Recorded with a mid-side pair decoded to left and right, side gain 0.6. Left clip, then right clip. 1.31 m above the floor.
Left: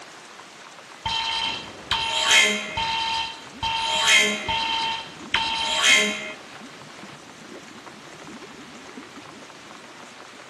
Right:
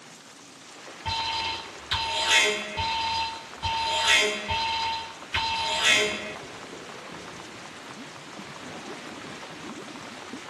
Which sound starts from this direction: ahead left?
An alarm, at 1.1 s.